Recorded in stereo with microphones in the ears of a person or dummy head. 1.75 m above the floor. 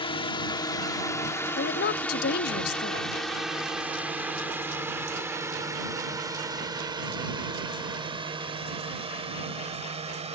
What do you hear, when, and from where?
0.0 s a drone: 25° left (ahead or behind); by 10.4 s 30° right (ahead or behind)
1.6 s a woman speaking: 55° left (ahead or behind)